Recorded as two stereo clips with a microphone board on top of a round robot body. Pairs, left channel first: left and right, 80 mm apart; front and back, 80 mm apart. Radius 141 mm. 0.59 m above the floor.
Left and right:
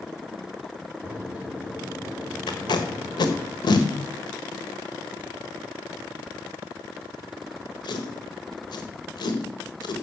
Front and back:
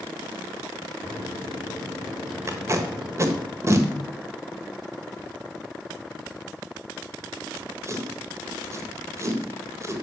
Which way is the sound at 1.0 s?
160° right.